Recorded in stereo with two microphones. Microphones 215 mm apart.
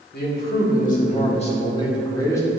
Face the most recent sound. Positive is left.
turn(degrees=15)  # may be behind; listen again after turning